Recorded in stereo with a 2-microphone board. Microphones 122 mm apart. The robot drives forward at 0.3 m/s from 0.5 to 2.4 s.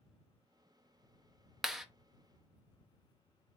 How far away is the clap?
About 0.5 m.